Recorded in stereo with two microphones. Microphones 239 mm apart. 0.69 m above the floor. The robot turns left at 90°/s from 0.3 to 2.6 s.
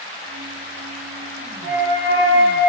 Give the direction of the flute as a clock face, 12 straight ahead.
2 o'clock.